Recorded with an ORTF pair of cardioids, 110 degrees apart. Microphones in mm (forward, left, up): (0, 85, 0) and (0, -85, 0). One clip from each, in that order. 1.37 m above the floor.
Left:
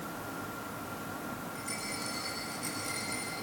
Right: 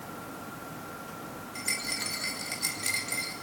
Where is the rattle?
65° right, 5.5 m.